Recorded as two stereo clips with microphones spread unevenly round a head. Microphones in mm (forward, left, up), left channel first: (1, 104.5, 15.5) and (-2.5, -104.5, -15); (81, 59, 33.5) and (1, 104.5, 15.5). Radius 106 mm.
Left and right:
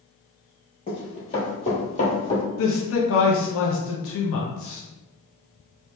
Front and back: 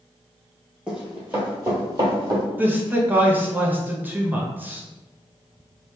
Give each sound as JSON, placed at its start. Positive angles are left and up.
{"t": 0.9, "sound": "running footsteps", "azimuth_deg": 60, "distance_m": 1.6}
{"t": 2.6, "sound": "a man speaking", "azimuth_deg": 95, "distance_m": 0.6}